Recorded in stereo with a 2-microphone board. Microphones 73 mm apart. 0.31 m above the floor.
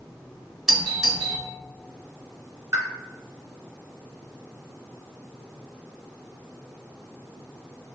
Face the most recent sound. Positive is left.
turn(degrees=-40)  # may be behind; listen again after turning